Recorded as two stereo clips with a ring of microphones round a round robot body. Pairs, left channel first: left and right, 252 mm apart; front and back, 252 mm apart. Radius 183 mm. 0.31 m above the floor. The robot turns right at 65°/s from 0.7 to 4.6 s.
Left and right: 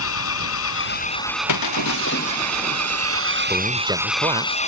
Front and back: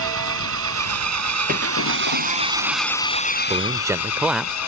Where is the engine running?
135° left; by 4.7 s 30° left.